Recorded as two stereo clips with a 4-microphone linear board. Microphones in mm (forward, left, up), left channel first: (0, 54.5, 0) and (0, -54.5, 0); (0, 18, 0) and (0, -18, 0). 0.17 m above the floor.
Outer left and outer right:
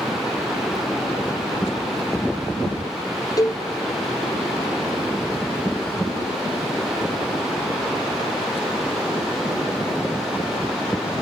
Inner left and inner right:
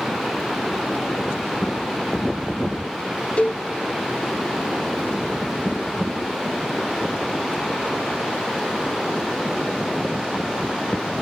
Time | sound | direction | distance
3.4 | a cowbell | 35° left (ahead or behind) | 4 m